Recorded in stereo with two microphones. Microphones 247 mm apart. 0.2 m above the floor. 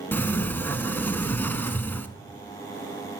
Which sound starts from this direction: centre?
A sliding door, at 0.1 s.